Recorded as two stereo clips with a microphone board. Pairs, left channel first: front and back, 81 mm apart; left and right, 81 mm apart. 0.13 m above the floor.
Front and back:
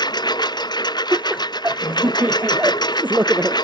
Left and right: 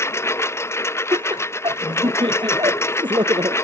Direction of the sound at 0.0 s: 30° left.